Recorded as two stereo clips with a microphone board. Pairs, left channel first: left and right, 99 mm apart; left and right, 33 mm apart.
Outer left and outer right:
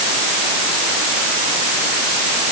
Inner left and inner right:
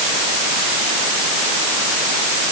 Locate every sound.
Only background noise.